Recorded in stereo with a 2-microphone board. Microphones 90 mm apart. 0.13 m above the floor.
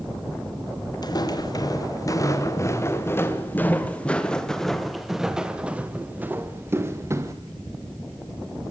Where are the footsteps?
45° left (ahead or behind), 3 m; by 7.3 s 35° right (ahead or behind), 2.5 m.